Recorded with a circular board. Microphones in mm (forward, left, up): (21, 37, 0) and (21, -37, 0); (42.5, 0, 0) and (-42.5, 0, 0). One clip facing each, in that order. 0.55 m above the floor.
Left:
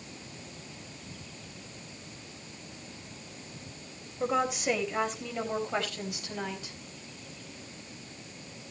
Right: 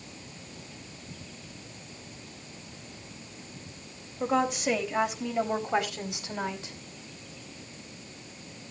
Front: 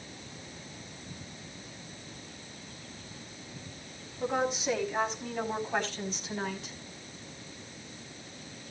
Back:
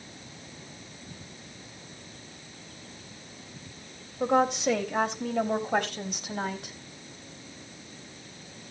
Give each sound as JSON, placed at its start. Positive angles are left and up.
{"t": 4.2, "sound": "a woman speaking", "azimuth_deg": 175, "distance_m": 3.5}